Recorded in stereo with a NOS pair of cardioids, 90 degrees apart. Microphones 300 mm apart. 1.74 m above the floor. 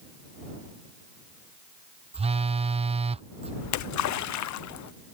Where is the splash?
65° left.